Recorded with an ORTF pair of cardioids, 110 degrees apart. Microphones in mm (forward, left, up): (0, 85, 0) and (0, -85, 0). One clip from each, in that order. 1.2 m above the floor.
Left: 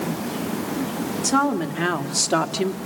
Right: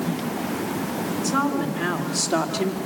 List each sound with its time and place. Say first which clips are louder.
1.2 s a woman speaking: left 4 dB; 40° left, 2.5 m; by 2.8 s 25° left, 1.8 m